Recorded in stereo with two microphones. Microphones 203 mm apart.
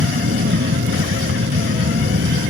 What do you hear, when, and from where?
0.0 s an aircraft: 80° right; by 2.5 s 75° right (ahead or behind)